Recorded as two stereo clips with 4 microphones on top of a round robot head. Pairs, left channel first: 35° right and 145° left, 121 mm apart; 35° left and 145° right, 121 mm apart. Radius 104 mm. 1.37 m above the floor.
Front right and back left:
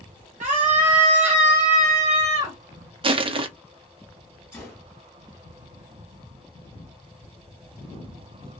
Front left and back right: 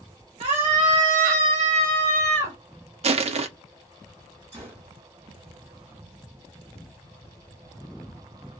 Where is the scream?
175° left, 0.7 m; by 2.6 s 170° right, 1.7 m.